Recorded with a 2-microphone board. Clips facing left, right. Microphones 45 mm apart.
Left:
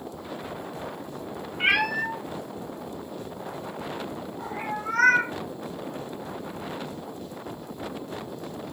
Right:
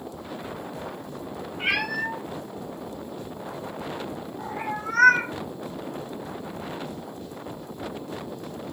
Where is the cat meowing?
35° left (ahead or behind), 0.7 m; by 5.3 s 5° left (ahead or behind), 2 m.